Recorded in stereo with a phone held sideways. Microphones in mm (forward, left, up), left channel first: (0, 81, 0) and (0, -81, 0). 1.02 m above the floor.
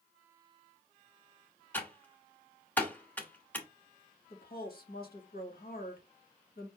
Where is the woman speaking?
70° left (ahead or behind), 1.7 m.